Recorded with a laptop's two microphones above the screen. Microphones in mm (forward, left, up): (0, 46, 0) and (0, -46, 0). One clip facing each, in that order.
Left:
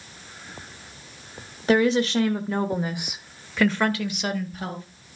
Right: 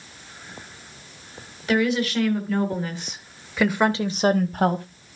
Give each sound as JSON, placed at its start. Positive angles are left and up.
{"t": 1.7, "sound": "a woman speaking", "side_deg": 35, "distance_m": 1.6}